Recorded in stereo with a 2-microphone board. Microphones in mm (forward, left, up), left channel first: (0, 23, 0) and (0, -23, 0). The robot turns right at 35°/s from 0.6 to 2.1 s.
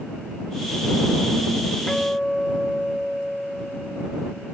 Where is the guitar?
5° left (ahead or behind); by 4.5 s 15° left (ahead or behind).